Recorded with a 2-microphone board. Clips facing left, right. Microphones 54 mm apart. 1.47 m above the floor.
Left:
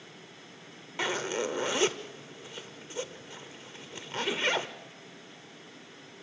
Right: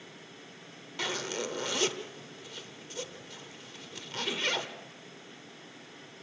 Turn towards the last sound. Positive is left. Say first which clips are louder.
# left 4 dB
turn(degrees=20)  # may be behind; listen again after turning